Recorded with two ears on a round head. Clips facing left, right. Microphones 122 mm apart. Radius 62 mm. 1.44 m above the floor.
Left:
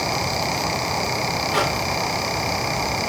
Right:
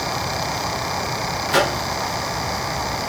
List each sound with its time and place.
1.5 s a microwave: 85° right, 3.5 m